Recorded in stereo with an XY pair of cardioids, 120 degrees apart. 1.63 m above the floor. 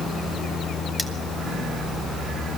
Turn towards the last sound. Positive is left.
turn(degrees=5)